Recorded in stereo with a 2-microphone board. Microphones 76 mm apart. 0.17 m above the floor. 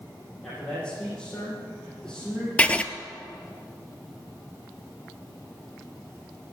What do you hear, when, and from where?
0.4 s a man speaking: 5° left (ahead or behind), 6 m
2.6 s writing: 15° left (ahead or behind), 0.7 m